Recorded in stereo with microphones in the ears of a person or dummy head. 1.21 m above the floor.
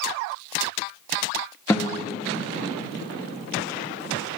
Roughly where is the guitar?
Centre.